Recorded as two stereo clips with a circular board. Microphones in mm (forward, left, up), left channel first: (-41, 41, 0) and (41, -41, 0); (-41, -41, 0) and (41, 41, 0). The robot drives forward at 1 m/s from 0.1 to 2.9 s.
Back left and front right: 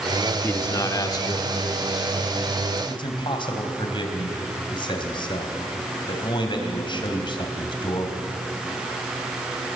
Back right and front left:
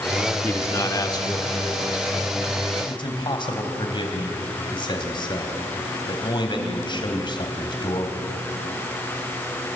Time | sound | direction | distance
0.4 | a man speaking | straight behind | 0.9 m